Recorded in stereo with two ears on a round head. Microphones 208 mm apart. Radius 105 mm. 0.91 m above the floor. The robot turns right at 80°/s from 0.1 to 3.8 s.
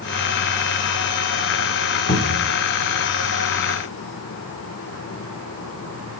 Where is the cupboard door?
25° left, 2 m; by 2.5 s 60° left, 2 m.